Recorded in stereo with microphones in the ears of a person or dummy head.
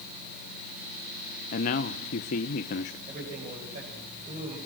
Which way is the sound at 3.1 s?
35° right (ahead or behind).